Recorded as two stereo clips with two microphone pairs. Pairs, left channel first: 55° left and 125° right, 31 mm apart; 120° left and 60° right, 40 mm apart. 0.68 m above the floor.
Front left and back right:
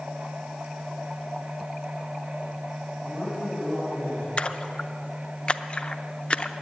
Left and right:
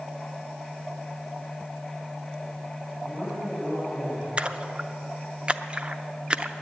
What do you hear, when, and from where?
3.0 s a man speaking: 50° right, 4.5 m
4.4 s a splash: straight ahead, 0.5 m